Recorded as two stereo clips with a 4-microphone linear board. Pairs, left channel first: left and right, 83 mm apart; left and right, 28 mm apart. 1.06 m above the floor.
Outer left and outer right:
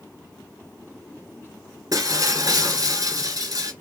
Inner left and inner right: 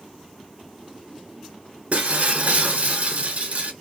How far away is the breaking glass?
About 2 m.